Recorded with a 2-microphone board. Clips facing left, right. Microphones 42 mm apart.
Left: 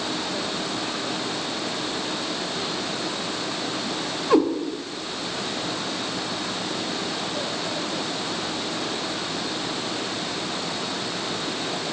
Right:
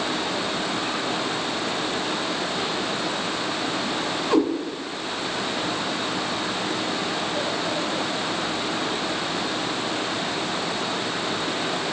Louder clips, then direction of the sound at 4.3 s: Left 2 dB; 10° left (ahead or behind).